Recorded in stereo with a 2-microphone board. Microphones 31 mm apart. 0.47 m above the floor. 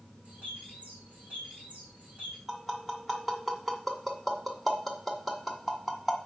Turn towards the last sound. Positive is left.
turn(degrees=0)  # may be behind; listen again after turning